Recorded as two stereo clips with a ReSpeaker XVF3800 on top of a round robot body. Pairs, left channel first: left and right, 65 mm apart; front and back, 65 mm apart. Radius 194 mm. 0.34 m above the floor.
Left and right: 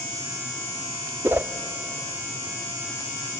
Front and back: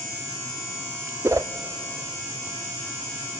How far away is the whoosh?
About 0.5 m.